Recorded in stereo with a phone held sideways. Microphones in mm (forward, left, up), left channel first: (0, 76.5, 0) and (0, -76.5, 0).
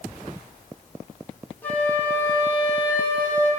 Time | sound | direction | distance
1.6 | a flute | 10° left (ahead or behind) | 1.4 m